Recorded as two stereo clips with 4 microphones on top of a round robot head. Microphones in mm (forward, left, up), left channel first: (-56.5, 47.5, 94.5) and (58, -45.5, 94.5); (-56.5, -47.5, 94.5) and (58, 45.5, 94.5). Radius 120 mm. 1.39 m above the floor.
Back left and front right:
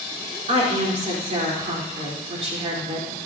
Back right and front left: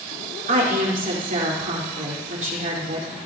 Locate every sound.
0.5 s a woman speaking: 5° left, 4.5 m